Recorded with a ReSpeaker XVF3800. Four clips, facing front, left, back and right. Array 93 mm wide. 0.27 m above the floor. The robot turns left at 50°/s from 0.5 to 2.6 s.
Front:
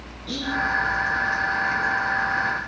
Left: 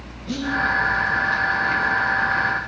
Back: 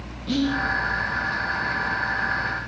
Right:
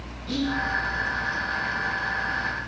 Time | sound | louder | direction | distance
0.3 | whispering | left 2 dB, back 5 dB | 165° left | 1.6 m